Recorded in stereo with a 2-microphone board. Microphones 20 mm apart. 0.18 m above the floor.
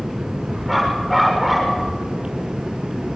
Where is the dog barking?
5° left (ahead or behind), 8 m.